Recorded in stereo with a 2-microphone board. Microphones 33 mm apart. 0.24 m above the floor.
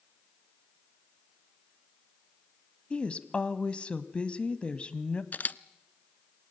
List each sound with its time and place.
2.9 s a woman speaking: 35° left (ahead or behind), 1.2 m
5.3 s a camera shutter: 55° left (ahead or behind), 0.5 m